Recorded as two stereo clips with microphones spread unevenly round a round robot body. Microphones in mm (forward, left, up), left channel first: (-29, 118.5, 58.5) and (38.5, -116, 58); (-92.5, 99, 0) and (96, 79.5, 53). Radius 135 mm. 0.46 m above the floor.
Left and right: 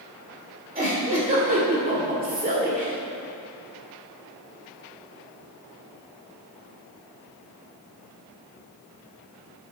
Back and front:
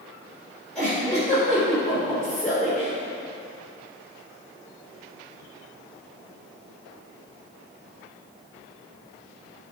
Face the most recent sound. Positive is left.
turn(degrees=-120)